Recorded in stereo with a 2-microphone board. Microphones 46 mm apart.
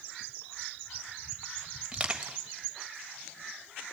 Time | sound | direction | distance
1.9 | crushing | 20° right (ahead or behind) | 1.3 m